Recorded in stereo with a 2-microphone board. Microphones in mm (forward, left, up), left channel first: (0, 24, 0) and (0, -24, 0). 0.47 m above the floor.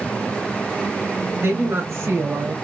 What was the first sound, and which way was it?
A woman speaking, 55° right (ahead or behind).